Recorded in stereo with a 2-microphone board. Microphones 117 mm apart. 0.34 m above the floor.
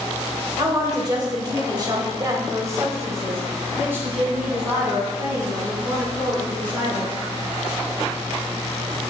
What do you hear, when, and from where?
0.6 s a woman speaking: 30° right (ahead or behind), 1.3 m; by 7.1 s 10° right (ahead or behind), 4 m